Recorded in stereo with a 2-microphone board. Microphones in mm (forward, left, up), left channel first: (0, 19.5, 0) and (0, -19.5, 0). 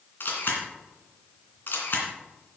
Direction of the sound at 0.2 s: 55° left (ahead or behind).